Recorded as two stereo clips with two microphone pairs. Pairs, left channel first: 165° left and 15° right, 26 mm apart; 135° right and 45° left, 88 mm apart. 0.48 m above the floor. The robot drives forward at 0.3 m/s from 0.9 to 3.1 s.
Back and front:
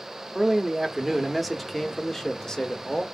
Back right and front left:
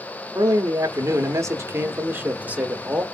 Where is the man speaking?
60° left, 0.9 m; by 3.0 s 120° left, 1.0 m.